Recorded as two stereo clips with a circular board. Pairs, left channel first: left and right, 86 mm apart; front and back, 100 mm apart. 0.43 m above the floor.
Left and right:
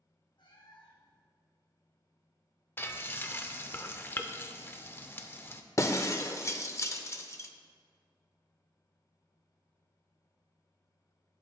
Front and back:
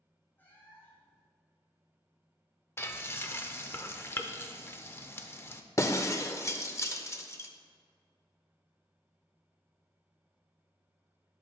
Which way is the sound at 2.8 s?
45° left.